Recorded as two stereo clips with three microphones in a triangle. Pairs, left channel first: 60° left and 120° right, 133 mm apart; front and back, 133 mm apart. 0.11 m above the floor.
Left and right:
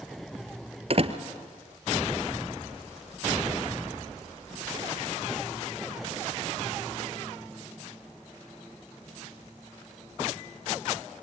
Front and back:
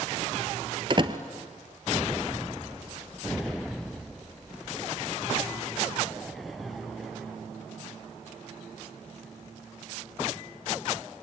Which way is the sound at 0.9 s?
140° right.